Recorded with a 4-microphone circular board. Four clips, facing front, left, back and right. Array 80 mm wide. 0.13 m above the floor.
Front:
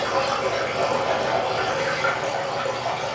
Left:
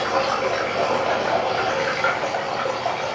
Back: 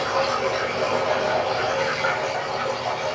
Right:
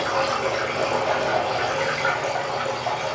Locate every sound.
0.0 s running water: 80° left, 8.5 m